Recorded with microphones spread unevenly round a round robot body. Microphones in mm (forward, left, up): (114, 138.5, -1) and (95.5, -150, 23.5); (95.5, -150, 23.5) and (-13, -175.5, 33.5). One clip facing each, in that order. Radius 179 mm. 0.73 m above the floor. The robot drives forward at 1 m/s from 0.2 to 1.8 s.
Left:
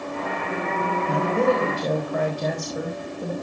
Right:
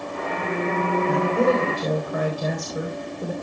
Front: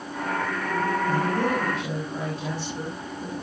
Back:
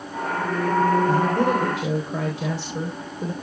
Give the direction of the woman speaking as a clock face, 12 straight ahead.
6 o'clock.